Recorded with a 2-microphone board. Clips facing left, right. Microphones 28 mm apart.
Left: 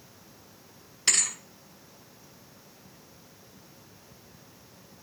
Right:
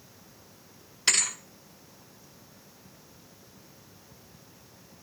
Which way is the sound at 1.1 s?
5° right (ahead or behind).